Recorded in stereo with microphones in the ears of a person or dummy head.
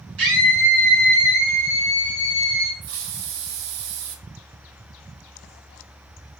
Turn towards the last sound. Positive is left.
turn(degrees=-60)  # may be behind; listen again after turning